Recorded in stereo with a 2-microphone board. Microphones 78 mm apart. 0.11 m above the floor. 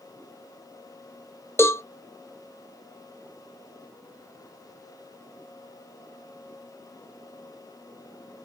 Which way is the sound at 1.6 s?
35° left (ahead or behind).